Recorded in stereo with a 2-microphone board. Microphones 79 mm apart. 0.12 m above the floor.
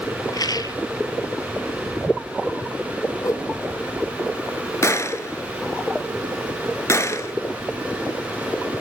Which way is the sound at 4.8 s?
40° left (ahead or behind).